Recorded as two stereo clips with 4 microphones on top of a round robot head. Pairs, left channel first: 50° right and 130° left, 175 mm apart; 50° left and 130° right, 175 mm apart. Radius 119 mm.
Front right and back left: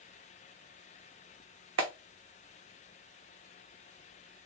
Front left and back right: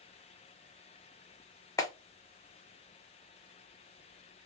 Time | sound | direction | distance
1.8 | a clap | 120° left | 1.1 m